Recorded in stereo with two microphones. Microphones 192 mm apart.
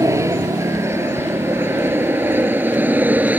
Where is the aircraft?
15° right (ahead or behind); by 3.4 s 10° right (ahead or behind).